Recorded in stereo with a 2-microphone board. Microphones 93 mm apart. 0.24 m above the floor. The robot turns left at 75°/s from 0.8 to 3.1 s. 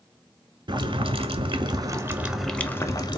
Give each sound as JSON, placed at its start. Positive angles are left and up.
{"t": 0.7, "sound": "boiling", "azimuth_deg": -60, "distance_m": 0.7}